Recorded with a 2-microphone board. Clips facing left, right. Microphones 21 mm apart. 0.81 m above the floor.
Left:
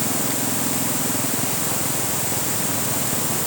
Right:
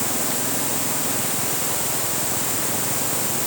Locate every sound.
Only background noise.